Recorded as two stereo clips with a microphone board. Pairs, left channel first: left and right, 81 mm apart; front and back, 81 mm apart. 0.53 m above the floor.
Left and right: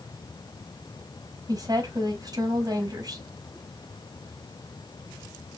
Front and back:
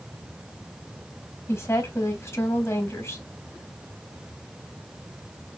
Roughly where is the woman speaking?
Ahead right.